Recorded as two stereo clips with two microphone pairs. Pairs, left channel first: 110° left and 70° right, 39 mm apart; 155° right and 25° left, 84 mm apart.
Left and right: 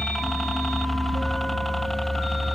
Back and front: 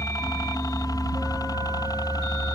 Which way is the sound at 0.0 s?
165° right.